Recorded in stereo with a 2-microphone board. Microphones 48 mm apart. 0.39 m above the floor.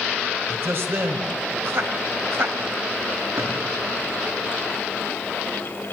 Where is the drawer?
85° right, 7.5 m.